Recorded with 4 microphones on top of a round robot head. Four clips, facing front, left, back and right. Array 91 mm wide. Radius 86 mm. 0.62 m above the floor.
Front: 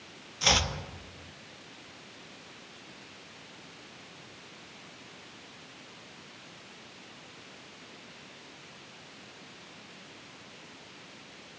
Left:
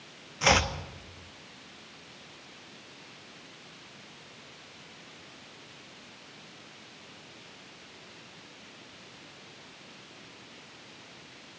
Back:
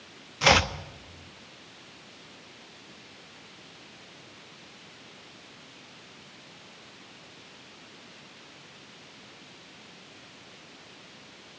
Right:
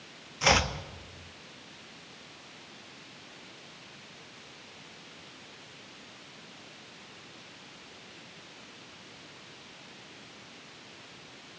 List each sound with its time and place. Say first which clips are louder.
0.4 s chopping: left 1 dB, back 7 dB; 175° left, 1.3 m